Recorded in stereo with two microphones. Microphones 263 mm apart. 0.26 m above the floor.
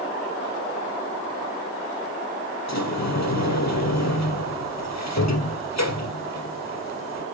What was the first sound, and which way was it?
A sliding door, 70° left (ahead or behind).